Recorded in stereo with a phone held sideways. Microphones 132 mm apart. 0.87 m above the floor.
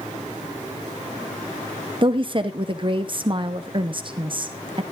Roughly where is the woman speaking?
Right.